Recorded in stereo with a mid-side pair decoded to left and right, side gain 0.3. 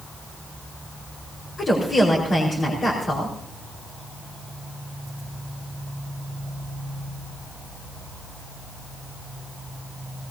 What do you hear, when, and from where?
1.6 s a woman speaking: 60° left, 4.5 m